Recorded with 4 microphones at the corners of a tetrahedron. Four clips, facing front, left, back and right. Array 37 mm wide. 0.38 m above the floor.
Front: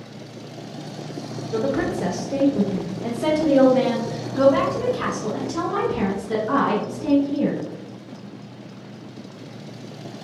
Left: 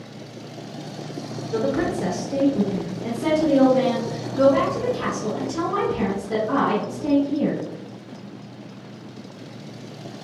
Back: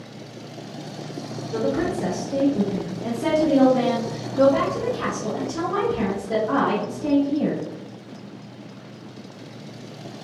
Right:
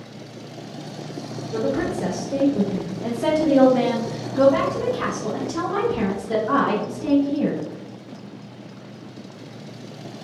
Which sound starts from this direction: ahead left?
A woman speaking, at 1.5 s.